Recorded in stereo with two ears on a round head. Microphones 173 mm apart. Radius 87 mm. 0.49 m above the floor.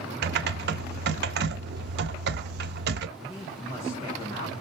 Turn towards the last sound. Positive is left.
turn(degrees=15)  # may be behind; listen again after turning